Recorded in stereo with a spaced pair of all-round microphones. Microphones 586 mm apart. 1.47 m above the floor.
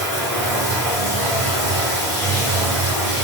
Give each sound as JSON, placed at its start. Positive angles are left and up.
{"t": 0.0, "sound": "running water", "side_deg": 70, "distance_m": 1.3}